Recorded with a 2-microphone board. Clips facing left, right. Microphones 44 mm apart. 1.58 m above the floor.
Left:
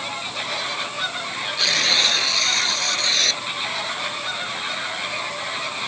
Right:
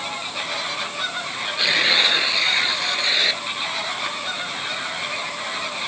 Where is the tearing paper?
15° right (ahead or behind).